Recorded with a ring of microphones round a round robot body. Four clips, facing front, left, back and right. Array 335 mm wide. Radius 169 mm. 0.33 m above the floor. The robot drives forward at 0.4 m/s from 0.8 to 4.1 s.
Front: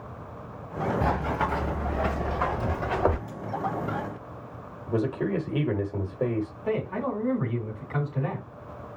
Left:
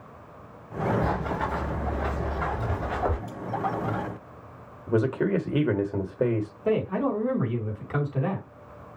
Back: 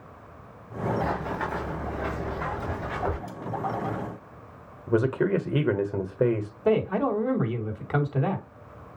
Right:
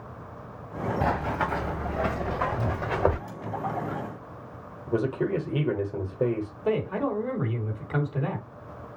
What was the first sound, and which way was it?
Running footsteps, 55° right.